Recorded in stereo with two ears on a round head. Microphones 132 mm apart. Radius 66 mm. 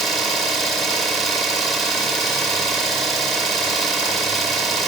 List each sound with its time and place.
0.0 s an engine running: centre (ahead or behind), 1.2 m